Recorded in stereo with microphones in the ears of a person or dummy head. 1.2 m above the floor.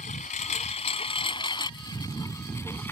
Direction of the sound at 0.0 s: 45° left (ahead or behind).